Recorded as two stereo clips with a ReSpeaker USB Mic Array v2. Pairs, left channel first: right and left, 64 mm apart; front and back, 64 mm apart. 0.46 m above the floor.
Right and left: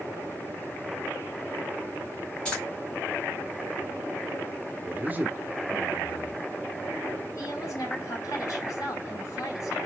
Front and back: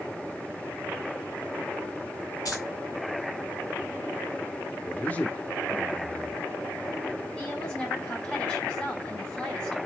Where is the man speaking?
50° left, 0.9 m.